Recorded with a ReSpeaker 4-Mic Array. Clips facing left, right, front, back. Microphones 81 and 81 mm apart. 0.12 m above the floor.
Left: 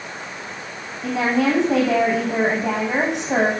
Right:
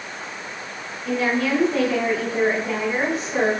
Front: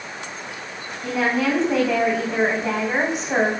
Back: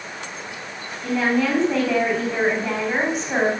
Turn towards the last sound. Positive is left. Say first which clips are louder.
# left 3 dB, back 1 dB
turn(degrees=75)